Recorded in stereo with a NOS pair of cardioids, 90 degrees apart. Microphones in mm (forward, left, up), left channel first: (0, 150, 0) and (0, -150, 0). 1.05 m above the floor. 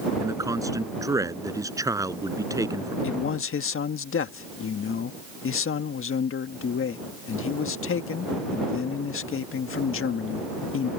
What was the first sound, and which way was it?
A man speaking, 10° right.